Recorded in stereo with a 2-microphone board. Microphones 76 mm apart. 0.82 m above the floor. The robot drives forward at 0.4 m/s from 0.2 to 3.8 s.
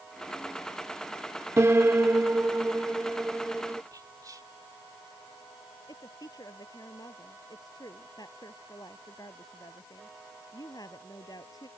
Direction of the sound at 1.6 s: 40° right (ahead or behind).